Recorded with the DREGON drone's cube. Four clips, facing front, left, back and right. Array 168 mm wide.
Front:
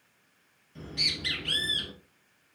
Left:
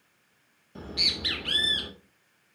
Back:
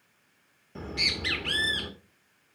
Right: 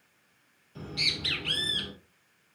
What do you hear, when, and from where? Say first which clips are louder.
0.8 s a bird: left 1 dB, back 4 dB; 150° left, 1.4 m